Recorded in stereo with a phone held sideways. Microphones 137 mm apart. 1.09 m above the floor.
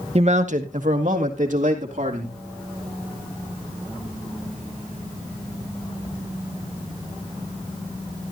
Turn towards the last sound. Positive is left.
turn(degrees=-65)  # may be behind; listen again after turning